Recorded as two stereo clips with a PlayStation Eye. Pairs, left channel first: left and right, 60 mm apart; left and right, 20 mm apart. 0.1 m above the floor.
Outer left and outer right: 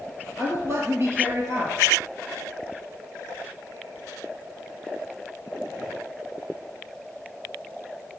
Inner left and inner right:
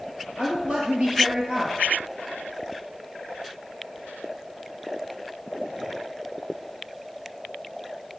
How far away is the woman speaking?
About 2 m.